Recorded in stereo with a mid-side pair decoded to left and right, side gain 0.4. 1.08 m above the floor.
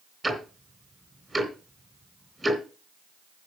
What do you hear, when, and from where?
0.2 s ticking: 15° right, 3 m